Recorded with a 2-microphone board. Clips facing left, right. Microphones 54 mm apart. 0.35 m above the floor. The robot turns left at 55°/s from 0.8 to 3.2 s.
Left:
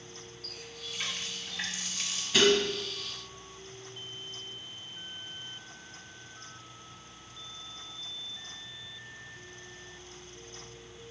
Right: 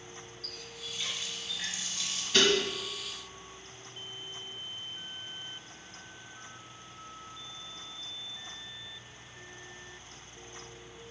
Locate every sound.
0.4 s a running tap: 150° left, 2 m; by 2.2 s 70° left, 2 m
2.3 s dishes clattering: 10° left (ahead or behind), 1.8 m; by 2.6 s 20° left (ahead or behind), 1.8 m